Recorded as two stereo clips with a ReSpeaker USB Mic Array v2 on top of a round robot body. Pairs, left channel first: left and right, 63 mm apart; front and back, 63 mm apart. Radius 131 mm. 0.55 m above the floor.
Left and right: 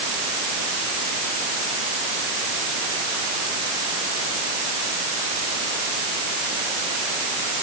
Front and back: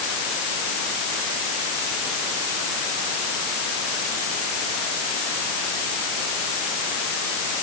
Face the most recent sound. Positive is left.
No sound to turn to.